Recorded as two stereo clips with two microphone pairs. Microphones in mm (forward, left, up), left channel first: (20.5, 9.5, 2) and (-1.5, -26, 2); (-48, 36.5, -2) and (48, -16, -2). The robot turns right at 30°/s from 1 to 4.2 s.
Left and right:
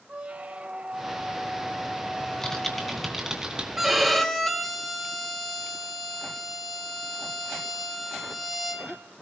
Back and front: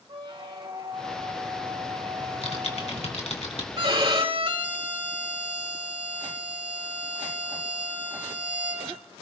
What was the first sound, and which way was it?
A squeak, 65° right.